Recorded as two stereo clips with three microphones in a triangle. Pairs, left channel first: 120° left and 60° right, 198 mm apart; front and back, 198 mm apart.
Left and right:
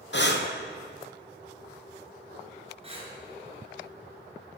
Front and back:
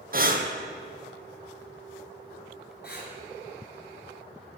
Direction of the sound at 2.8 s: 5° right.